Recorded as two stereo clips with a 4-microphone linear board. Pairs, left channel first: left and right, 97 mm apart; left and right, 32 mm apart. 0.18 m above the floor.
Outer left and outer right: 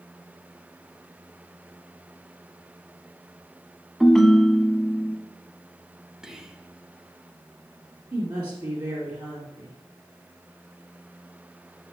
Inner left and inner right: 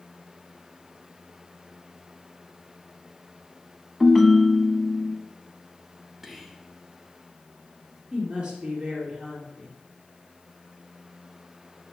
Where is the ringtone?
5° left (ahead or behind), 0.8 m.